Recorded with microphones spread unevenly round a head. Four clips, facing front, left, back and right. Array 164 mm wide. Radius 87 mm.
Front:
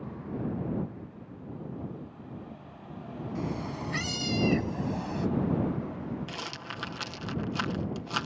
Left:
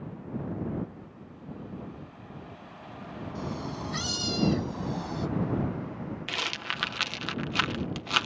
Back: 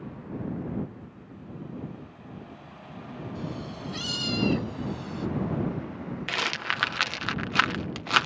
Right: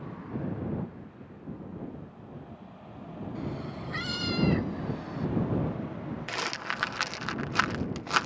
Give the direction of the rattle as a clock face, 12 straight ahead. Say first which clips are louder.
Right 2 dB, back 8 dB; 5 o'clock.